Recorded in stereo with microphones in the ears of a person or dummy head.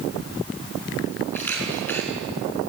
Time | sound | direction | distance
1.3 | a camera shutter | 10° left (ahead or behind) | 4.5 m